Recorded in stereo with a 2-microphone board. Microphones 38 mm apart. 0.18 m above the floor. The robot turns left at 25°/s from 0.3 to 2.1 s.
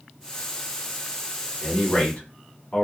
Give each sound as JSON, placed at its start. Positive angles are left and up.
{"t": 1.6, "sound": "a man speaking", "side_deg": 20, "distance_m": 1.3}